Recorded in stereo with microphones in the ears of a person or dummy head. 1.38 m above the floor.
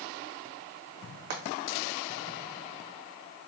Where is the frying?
60° right (ahead or behind), 1.1 m.